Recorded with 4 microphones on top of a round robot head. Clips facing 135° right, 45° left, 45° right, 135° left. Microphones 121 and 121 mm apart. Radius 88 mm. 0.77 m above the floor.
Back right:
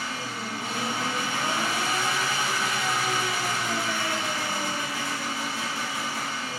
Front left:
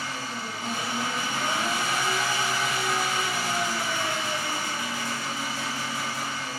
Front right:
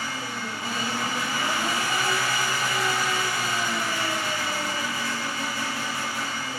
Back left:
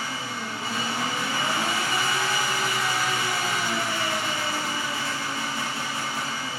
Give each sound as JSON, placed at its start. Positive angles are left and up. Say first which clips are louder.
{"t": 0.0, "sound": "an engine running", "louder": "even, even", "azimuth_deg": -160, "distance_m": 1.0}